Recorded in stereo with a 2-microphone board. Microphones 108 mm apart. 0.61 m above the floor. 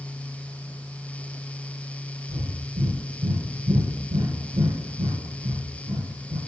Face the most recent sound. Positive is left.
turn(degrees=-65)  # may be behind; listen again after turning